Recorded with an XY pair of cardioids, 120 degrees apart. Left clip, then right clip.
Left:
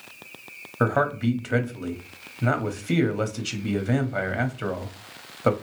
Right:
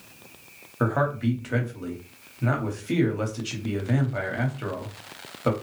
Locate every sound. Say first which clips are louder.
0.8 s a man speaking: left 2 dB; 25° left, 0.9 m